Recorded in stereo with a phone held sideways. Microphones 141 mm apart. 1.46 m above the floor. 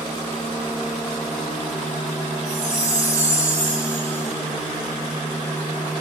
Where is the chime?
50° right (ahead or behind), 1.1 m.